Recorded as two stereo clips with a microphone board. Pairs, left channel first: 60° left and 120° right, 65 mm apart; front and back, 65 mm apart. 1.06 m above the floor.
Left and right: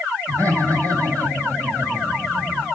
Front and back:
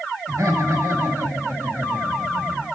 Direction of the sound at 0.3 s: 145° right.